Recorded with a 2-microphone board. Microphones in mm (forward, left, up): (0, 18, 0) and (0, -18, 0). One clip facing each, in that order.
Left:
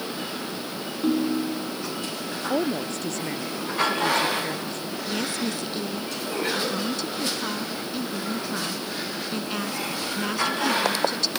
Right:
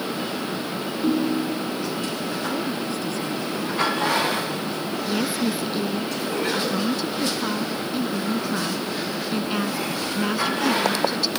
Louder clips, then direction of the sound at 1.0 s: Right 1 dB; 15° left (ahead or behind).